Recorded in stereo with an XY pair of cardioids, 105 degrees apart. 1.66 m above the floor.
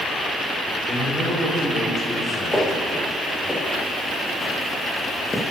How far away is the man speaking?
About 7 m.